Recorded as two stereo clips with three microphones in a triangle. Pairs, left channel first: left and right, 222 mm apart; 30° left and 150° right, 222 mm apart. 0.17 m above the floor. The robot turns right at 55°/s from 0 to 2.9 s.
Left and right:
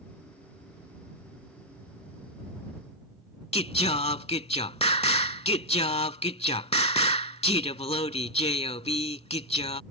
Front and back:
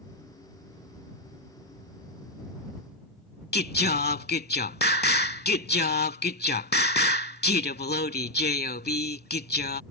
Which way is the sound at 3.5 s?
40° left.